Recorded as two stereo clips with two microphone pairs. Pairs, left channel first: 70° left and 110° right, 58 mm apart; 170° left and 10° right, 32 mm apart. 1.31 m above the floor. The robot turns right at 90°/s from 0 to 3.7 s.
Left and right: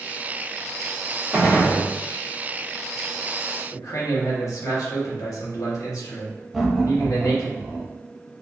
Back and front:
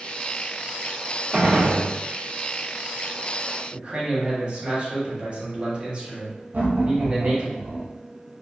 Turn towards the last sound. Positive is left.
turn(degrees=-20)